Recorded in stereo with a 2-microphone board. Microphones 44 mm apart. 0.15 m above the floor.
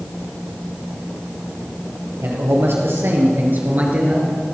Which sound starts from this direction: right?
A man speaking, at 2.2 s.